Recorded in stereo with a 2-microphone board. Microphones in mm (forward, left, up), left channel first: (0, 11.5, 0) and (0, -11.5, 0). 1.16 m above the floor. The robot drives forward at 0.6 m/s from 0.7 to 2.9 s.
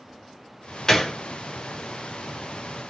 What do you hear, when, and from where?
0.9 s a gunshot: 25° left (ahead or behind), 0.5 m